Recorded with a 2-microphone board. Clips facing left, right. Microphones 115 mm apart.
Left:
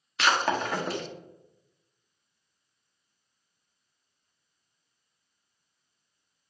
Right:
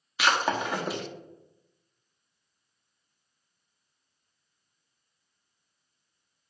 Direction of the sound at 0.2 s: 5° right (ahead or behind).